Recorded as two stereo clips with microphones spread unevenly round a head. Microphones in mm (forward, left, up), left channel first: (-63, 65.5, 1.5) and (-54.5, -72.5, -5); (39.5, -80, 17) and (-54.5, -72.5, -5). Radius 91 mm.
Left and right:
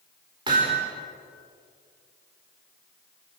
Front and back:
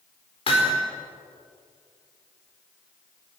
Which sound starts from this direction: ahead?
Hammering, at 0.5 s.